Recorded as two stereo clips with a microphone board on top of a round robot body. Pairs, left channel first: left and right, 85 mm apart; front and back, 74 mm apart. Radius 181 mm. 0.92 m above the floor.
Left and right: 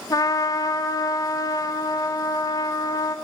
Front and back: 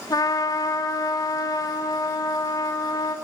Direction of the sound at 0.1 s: 40° left.